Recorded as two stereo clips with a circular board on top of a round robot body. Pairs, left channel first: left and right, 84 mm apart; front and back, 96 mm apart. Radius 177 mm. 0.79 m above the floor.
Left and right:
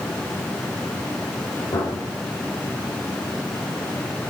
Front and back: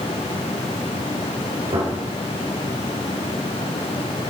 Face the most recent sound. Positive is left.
turn(degrees=140)